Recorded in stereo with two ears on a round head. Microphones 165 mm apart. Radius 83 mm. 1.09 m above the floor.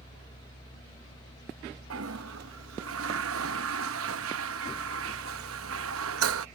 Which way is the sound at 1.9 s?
80° right.